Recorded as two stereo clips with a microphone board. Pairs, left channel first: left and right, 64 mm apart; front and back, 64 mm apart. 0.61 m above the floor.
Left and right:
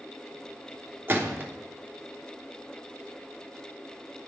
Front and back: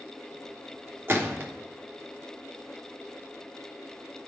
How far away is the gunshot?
About 1.0 m.